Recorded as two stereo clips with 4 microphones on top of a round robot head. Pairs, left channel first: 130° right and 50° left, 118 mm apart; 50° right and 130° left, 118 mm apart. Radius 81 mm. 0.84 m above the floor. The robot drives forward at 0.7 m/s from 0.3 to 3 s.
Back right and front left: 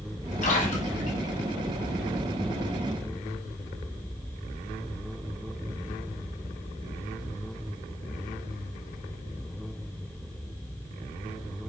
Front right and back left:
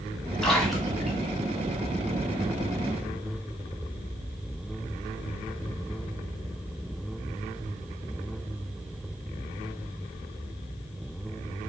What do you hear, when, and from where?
0.4 s a splash: 130° right, 3 m; by 1.3 s 140° right, 3.5 m